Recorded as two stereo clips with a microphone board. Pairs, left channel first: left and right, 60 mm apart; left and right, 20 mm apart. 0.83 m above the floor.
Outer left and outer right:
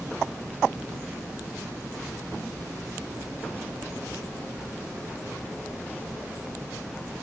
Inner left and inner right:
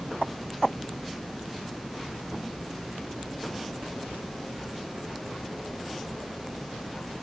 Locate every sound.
Only background noise.